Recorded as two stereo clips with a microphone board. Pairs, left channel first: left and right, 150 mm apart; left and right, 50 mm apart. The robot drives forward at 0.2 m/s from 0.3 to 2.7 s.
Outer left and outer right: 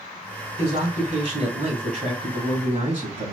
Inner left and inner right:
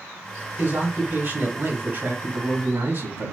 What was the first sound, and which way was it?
A man speaking, 55° right (ahead or behind).